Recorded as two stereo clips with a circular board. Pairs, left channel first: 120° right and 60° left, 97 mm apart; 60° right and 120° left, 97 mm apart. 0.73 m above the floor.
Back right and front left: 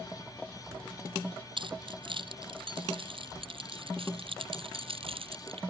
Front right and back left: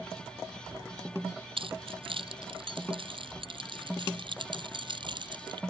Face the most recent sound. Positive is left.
turn(degrees=85)